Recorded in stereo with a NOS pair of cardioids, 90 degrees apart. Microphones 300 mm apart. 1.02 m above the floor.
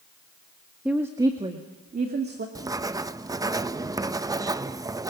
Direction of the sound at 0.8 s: 5° right.